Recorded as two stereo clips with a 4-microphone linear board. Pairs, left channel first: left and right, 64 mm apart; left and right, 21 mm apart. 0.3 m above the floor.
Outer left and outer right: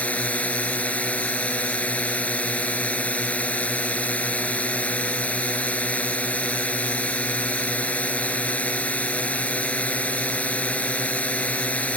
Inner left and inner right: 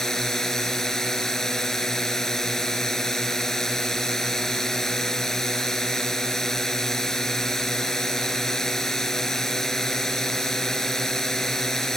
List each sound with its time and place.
0.0 s a drone: 20° left (ahead or behind)